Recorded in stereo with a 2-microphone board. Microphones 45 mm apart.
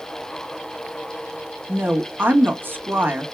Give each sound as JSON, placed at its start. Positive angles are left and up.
{"t": 1.7, "sound": "a woman speaking", "side_deg": -50, "distance_m": 1.4}